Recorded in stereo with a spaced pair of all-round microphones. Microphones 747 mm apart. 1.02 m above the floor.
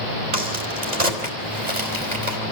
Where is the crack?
60° right (ahead or behind), 4 m.